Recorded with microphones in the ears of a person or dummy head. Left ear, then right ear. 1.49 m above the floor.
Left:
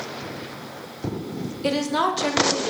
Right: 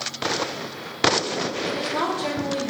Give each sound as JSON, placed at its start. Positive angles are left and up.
{"t": 1.6, "sound": "a woman speaking", "side_deg": 80, "distance_m": 1.5}